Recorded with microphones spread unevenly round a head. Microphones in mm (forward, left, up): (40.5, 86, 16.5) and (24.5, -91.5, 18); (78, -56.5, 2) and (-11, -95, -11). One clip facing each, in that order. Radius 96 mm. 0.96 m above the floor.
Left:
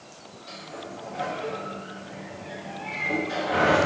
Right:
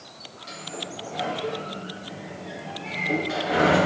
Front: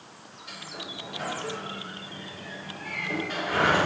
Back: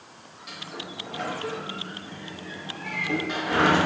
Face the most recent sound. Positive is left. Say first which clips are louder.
# right 2 dB, back 2 dB
turn(degrees=-165)